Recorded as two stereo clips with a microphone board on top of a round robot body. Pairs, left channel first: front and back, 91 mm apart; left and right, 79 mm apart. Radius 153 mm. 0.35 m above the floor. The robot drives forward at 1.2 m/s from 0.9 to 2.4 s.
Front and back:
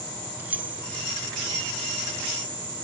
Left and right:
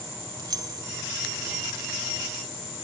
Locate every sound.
0.4 s keys jangling: 110° right, 0.8 m